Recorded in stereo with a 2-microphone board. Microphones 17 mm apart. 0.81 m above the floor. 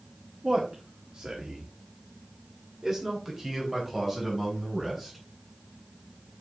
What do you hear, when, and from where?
0.4 s a man speaking: 55° right (ahead or behind), 1.6 m; by 5.2 s 15° right (ahead or behind), 4.5 m